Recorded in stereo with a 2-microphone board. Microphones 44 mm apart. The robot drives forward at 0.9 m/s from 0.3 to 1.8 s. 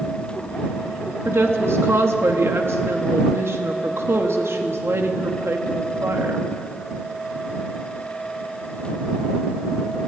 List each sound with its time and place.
1.2 s a woman speaking: 75° right (ahead or behind), 2.5 m; by 6.5 s 85° right, 2.5 m